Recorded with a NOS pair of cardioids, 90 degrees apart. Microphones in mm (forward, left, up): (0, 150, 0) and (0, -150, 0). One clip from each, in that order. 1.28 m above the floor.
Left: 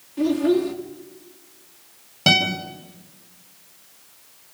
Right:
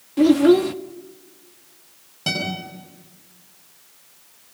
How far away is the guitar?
About 6.5 m.